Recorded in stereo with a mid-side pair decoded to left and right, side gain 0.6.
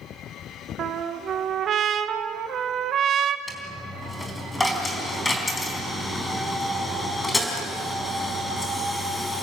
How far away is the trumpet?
About 1.4 m.